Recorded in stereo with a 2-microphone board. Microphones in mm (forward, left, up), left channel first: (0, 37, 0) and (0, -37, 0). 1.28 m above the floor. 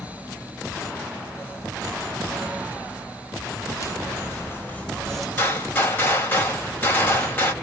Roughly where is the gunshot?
Left.